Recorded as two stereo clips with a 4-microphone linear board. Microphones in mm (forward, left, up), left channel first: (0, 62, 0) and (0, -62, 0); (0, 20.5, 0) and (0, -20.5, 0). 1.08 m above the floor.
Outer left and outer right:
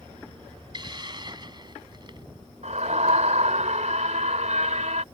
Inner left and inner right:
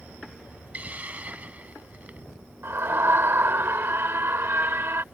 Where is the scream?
70° right (ahead or behind).